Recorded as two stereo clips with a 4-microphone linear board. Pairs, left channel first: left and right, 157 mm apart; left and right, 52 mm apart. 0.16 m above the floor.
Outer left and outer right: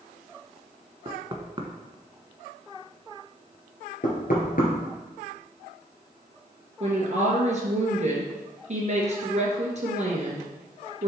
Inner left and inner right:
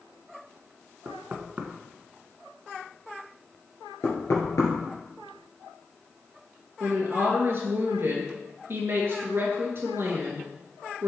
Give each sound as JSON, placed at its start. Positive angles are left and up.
{"t": 1.1, "sound": "knocking", "side_deg": -35, "distance_m": 0.9}
{"t": 4.0, "sound": "knocking", "side_deg": 60, "distance_m": 2.0}
{"t": 6.8, "sound": "a woman speaking", "side_deg": -50, "distance_m": 2.5}